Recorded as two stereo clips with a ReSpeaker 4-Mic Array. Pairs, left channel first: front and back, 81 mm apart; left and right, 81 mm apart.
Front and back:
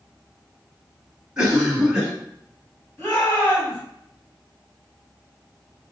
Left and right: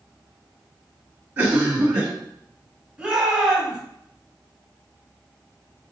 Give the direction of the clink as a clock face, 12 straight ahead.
I don't hear a clink.